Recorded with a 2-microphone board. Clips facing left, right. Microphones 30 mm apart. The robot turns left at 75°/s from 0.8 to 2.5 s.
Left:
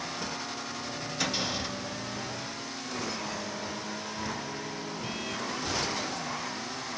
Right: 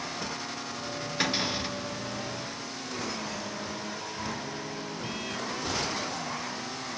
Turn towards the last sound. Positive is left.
turn(degrees=165)